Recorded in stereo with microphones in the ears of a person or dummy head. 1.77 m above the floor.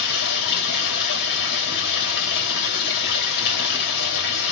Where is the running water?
60° left (ahead or behind), 2.5 m.